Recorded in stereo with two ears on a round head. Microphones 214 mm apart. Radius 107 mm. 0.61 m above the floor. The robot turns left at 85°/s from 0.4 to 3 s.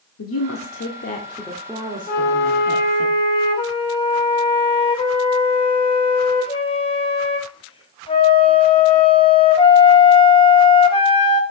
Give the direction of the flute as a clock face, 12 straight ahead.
8 o'clock.